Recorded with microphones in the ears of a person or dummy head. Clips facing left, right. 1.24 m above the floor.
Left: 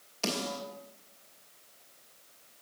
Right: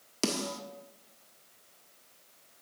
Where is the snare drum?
50° right (ahead or behind), 1.3 m.